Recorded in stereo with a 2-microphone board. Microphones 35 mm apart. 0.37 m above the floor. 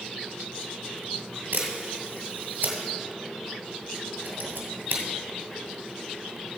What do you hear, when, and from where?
1.5 s a camera shutter: 85° right, 2 m